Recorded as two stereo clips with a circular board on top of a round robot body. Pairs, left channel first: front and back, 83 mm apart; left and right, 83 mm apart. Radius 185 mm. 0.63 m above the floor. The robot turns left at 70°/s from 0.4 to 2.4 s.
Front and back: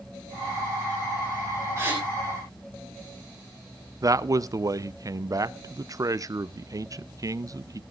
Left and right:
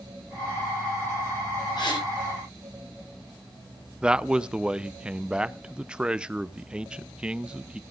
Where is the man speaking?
165° right, 0.7 m.